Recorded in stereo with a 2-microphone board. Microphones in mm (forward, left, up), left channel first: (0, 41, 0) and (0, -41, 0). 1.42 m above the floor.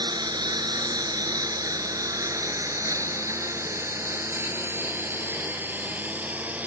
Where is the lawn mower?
65° right (ahead or behind); by 6.7 s 20° right (ahead or behind).